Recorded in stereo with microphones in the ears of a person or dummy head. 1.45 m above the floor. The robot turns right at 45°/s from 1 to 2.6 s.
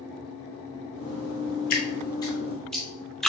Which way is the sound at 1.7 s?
40° left (ahead or behind).